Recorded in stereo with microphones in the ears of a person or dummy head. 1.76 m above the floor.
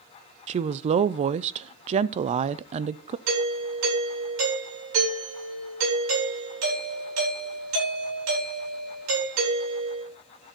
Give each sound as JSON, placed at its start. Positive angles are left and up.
{"t": 0.5, "sound": "a woman speaking", "side_deg": -40, "distance_m": 0.6}
{"t": 3.3, "sound": "a doorbell", "side_deg": -80, "distance_m": 8.5}